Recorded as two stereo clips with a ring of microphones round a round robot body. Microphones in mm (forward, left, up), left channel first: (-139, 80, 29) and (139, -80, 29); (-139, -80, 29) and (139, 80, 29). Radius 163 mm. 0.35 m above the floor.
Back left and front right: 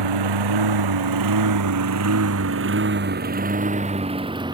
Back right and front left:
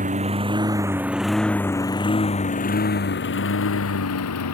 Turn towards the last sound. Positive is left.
turn(degrees=-110)